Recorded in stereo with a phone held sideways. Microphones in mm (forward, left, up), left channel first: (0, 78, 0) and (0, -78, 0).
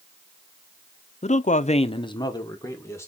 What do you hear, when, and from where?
1.2 s a man speaking: 45° left (ahead or behind), 0.6 m; by 3.1 s 15° left (ahead or behind), 2 m